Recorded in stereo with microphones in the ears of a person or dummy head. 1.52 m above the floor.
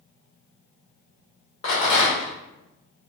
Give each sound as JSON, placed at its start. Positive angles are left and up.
{"t": 1.6, "sound": "a rattle", "side_deg": 35, "distance_m": 1.7}